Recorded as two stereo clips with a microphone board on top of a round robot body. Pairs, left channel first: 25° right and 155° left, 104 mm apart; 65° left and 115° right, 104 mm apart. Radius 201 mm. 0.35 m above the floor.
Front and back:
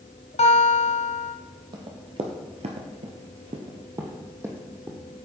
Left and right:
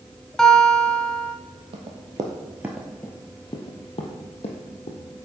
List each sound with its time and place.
0.4 s a guitar: 15° right, 1.3 m
1.7 s running footsteps: 150° right, 1.2 m; by 5.0 s 85° left, 1.7 m